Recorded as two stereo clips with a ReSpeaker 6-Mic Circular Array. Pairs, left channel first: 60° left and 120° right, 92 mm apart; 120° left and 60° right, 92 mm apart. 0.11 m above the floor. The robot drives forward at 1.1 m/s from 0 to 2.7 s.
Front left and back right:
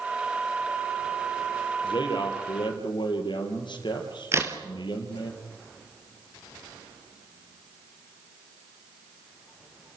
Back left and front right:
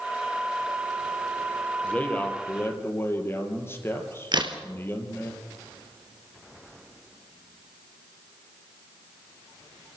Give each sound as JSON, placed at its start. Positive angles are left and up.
{"t": 1.8, "sound": "a man speaking", "azimuth_deg": 45, "distance_m": 3.5}
{"t": 4.3, "sound": "a crack", "azimuth_deg": -65, "distance_m": 2.0}